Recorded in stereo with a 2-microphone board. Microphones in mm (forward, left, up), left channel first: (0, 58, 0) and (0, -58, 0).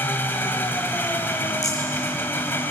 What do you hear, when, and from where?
0.0 s an engine running: 20° left (ahead or behind), 1.2 m
1.6 s a rattle: 70° left (ahead or behind), 6 m